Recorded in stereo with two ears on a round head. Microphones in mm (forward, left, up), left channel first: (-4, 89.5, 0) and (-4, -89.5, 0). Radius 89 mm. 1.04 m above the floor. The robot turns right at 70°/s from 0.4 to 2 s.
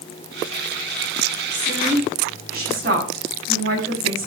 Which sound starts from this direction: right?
A woman speaking, at 1.5 s.